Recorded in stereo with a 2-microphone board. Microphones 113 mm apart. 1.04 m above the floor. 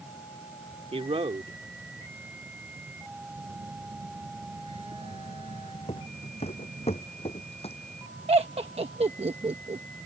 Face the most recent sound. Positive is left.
turn(degrees=-65)  # may be behind; listen again after turning